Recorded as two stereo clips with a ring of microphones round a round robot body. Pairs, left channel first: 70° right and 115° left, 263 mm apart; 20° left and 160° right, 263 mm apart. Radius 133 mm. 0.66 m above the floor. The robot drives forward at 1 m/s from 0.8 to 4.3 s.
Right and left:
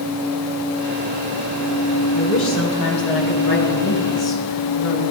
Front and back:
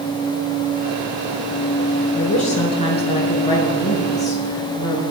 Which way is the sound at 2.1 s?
40° right.